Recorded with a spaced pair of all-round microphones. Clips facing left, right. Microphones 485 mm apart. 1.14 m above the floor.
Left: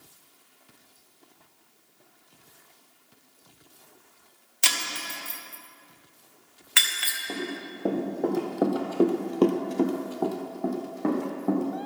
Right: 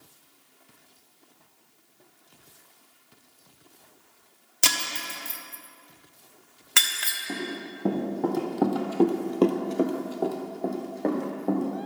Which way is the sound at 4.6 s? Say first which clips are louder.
Right 2 dB; 70° right (ahead or behind).